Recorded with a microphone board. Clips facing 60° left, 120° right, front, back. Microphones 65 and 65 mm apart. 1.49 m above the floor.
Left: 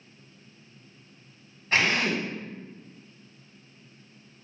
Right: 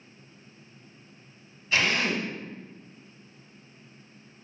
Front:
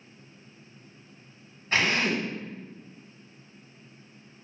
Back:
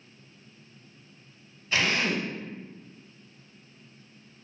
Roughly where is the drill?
Ahead left.